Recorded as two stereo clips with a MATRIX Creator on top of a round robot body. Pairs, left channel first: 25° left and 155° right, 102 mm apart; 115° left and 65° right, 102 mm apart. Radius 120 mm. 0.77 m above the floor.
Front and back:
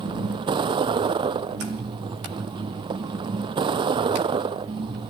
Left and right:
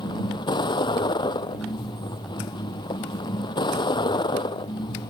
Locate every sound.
0.0 s a vehicle: 160° left